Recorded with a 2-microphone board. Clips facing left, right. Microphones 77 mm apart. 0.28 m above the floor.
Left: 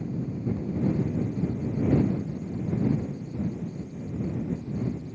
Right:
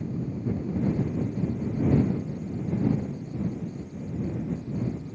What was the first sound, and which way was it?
Only background noise.